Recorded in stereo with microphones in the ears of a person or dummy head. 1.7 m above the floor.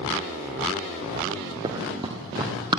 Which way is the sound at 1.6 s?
20° right (ahead or behind).